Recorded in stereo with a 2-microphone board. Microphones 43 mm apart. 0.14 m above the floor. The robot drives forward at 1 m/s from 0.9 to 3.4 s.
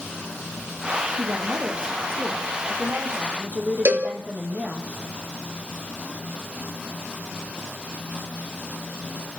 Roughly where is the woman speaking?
Right.